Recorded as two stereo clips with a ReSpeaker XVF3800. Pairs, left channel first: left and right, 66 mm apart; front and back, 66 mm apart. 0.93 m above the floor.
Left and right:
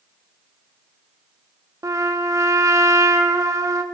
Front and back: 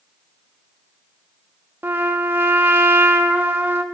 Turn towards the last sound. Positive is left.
turn(degrees=-125)